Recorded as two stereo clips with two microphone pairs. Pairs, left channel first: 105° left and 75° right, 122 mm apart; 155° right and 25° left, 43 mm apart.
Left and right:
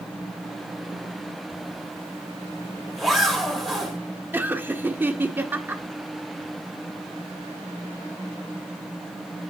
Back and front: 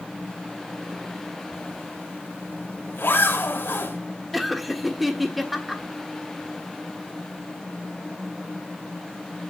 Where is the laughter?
55° right, 1.2 m.